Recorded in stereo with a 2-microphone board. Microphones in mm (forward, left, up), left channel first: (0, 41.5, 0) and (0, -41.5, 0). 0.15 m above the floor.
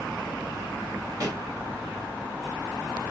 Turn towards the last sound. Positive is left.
turn(degrees=-45)  # may be behind; listen again after turning